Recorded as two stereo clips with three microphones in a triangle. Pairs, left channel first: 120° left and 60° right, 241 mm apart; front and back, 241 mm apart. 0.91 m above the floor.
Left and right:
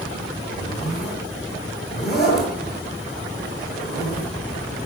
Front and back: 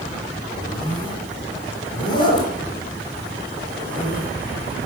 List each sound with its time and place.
0.6 s a zipper: 70° left, 5.5 m